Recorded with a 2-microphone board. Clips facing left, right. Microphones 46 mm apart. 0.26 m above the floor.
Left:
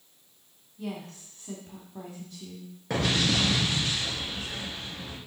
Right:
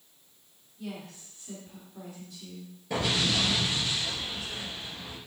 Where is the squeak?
No squeak in this recording.